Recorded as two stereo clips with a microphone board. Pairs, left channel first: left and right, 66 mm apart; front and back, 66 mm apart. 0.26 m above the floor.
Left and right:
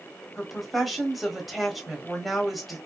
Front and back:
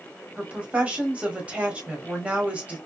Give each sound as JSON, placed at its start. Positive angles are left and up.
{"t": 0.4, "sound": "a woman speaking", "azimuth_deg": -175, "distance_m": 1.3}